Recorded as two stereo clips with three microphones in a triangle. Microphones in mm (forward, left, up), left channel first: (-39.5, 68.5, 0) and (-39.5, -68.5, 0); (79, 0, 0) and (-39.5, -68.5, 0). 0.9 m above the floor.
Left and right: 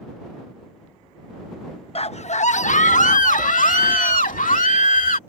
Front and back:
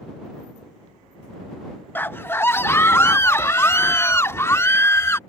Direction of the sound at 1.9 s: 100° left.